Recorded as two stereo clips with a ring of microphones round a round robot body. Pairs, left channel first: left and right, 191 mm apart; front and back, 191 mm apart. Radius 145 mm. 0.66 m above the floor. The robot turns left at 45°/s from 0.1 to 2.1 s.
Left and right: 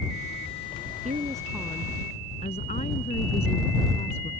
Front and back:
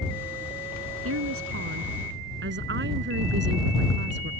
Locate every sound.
1.0 s a woman speaking: 155° right; by 4.3 s 160° left